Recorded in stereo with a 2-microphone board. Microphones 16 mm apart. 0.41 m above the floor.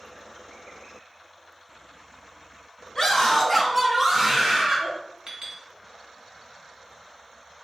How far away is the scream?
About 1.5 m.